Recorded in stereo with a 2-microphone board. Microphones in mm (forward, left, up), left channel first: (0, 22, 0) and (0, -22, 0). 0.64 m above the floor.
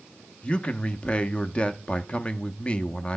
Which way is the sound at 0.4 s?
25° left (ahead or behind).